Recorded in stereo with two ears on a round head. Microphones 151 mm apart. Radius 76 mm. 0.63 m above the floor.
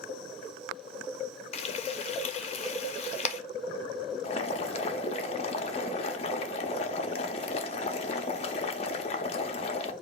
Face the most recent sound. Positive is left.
turn(degrees=40)  # may be behind; listen again after turning